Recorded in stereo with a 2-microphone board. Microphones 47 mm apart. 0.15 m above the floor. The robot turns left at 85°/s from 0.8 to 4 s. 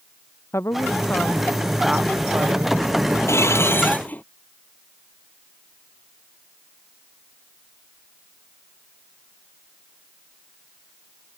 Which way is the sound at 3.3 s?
100° left.